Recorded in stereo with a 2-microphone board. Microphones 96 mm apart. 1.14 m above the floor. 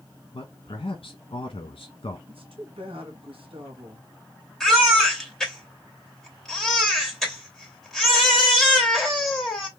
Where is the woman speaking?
70° right (ahead or behind), 1.7 m.